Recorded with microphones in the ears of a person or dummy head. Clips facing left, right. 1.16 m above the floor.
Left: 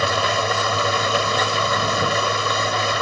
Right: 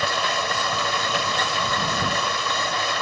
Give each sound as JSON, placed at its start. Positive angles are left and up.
{"t": 0.0, "sound": "an engine running", "side_deg": 80}